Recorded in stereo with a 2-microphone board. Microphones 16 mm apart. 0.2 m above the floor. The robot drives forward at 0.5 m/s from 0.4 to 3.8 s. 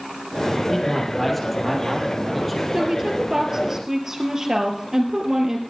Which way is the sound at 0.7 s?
10° left (ahead or behind).